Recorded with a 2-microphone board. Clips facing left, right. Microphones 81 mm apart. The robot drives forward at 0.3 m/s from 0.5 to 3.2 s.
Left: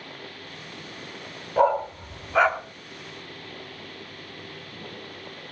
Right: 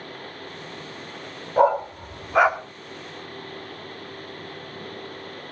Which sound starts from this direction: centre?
A dog barking, at 1.6 s.